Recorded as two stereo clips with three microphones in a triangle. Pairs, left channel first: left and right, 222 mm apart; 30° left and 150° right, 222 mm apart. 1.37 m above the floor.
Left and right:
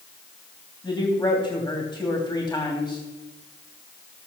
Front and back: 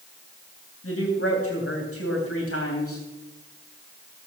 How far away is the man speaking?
About 3 m.